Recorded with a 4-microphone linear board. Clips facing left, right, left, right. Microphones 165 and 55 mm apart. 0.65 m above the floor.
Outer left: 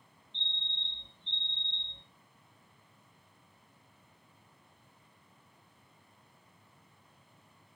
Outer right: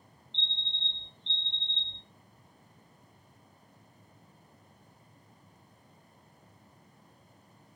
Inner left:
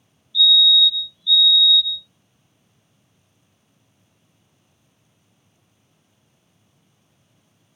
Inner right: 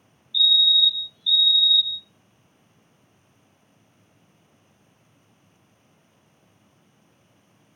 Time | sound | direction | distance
0.3 | a fire alarm | 40° left (ahead or behind) | 2.0 m